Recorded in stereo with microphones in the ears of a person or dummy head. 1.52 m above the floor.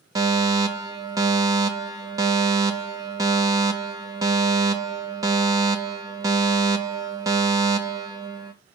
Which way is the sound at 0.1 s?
20° right (ahead or behind).